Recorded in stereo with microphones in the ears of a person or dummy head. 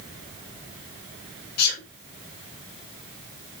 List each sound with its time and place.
1.6 s a sneeze: 55° left (ahead or behind), 3 m